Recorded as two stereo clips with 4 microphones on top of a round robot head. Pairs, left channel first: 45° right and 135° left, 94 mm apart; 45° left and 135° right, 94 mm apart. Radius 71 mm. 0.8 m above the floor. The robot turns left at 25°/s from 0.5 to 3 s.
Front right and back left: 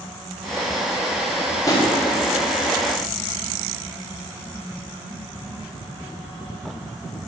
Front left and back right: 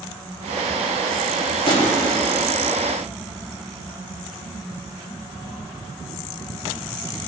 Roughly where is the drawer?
Ahead.